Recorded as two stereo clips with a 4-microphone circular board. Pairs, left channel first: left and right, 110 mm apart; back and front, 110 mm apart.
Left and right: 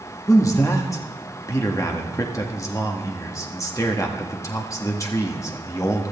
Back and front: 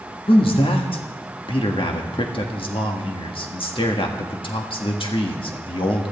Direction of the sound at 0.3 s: 150° left.